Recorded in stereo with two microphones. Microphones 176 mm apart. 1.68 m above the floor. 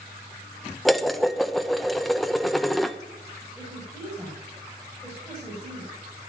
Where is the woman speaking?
5° left (ahead or behind), 7 m.